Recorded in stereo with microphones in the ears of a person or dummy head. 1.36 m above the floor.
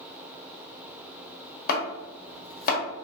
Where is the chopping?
55° left (ahead or behind), 1.1 m.